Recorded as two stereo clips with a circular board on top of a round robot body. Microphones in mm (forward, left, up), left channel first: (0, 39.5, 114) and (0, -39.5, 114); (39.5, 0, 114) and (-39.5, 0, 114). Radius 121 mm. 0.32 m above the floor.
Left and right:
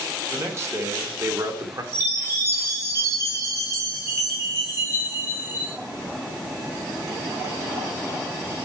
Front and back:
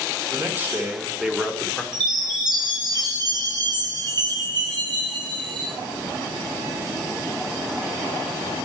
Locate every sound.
0.3 s a man speaking: 135° right, 1.5 m; by 1.8 s 85° right, 1.6 m
1.9 s a chime: 150° right, 2.5 m